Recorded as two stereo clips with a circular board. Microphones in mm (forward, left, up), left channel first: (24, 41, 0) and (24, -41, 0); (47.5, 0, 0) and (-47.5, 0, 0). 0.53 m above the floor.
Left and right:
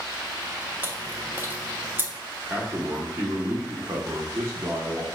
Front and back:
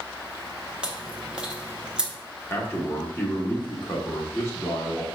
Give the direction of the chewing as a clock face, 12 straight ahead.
4 o'clock.